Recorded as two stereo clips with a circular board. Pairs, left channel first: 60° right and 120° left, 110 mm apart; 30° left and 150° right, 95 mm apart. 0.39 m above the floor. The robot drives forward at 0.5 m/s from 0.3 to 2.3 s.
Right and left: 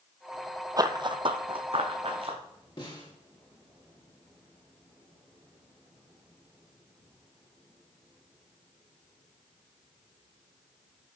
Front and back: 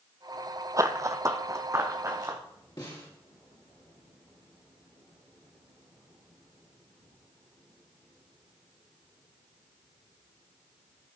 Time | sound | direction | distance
0.8 | running footsteps | 165° left | 0.6 m
2.8 | a snare drum | 15° right | 3 m